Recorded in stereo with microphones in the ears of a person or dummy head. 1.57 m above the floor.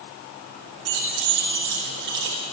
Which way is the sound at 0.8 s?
65° right (ahead or behind).